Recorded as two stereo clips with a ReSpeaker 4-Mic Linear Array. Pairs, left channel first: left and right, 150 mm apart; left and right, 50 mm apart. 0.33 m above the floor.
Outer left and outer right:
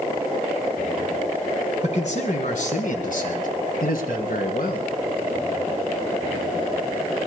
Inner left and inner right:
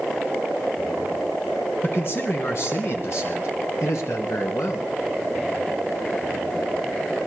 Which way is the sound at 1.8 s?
50° left (ahead or behind).